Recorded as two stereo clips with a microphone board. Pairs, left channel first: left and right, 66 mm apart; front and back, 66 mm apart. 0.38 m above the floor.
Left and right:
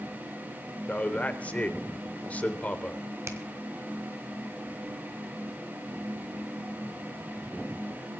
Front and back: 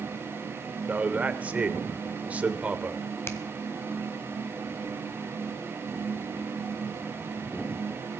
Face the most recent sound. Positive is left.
turn(degrees=-45)